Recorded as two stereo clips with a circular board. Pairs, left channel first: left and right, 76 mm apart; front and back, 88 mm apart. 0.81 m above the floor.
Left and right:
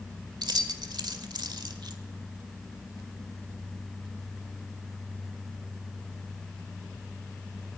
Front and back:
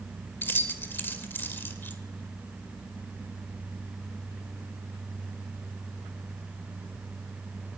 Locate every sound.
0.4 s keys jangling: 65° right, 1.9 m